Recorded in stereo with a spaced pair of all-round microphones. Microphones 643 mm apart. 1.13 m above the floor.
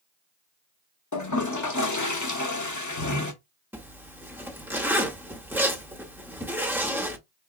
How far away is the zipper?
About 0.8 m.